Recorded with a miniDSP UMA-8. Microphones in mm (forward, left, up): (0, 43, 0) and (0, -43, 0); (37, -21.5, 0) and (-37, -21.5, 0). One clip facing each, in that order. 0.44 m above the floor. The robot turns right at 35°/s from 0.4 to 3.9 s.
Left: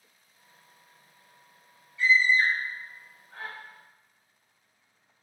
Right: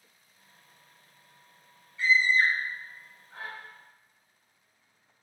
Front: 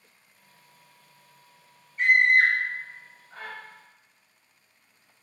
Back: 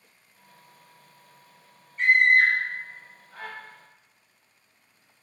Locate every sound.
2.0 s a scream: 85° right, 1.1 m; by 3.5 s 30° right, 1.1 m